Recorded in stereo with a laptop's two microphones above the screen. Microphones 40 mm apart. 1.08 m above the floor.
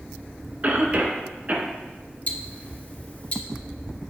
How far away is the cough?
About 1.5 m.